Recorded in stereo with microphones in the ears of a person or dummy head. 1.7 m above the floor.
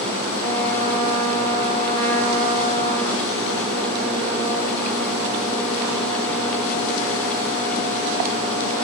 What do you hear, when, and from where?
0.4 s a trumpet: 20° left (ahead or behind), 4 m